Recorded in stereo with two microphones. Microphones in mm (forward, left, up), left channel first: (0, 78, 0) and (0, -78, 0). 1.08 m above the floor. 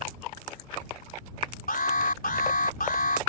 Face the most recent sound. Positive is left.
turn(degrees=65)  # may be behind; listen again after turning